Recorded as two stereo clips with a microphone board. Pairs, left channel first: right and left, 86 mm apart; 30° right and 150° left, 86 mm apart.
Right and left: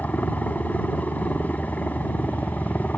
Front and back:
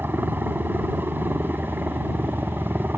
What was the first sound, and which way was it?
A helicopter, 155° right.